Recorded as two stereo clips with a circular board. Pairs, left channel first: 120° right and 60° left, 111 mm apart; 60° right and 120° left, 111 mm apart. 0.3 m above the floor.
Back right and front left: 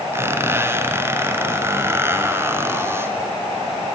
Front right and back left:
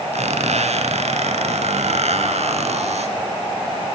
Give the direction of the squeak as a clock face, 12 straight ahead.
8 o'clock.